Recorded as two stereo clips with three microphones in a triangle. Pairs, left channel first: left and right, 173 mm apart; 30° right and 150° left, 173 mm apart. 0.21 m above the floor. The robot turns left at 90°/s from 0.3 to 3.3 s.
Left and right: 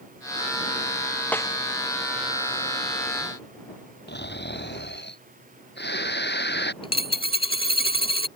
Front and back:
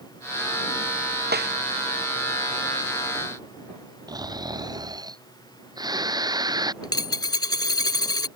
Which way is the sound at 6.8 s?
30° left.